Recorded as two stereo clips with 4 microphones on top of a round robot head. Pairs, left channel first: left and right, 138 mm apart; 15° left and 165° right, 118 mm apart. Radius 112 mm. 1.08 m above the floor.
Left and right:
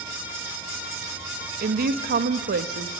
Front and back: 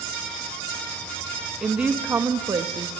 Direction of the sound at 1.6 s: 80° right.